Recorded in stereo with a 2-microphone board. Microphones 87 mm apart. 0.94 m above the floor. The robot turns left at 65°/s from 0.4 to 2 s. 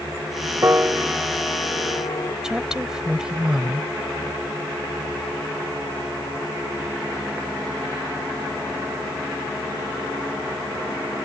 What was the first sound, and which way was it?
A piano, 35° right (ahead or behind).